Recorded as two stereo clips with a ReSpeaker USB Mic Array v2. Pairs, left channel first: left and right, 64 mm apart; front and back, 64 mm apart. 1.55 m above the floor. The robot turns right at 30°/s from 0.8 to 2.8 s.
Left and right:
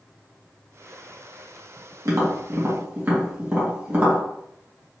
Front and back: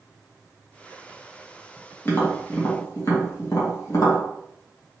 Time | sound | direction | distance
2.0 | tapping | 60° right | 1.7 m